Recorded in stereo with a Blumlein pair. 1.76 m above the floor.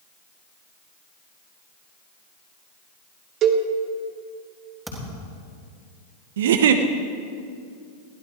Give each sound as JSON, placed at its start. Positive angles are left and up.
{"t": 3.4, "sound": "a cowbell", "azimuth_deg": -35, "distance_m": 1.2}
{"t": 4.9, "sound": "a thud", "azimuth_deg": -5, "distance_m": 3.5}
{"t": 6.4, "sound": "a giggle", "azimuth_deg": -60, "distance_m": 0.9}